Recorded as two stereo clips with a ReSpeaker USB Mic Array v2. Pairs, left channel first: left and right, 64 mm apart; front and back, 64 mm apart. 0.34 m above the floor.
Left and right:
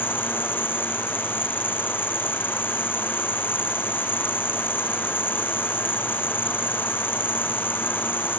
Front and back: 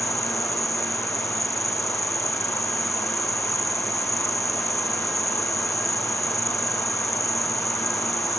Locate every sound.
0.0 s an insect: 35° left